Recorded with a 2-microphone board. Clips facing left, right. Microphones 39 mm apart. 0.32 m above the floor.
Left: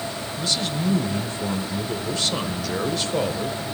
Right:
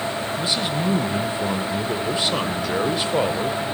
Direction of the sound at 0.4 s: 20° right (ahead or behind).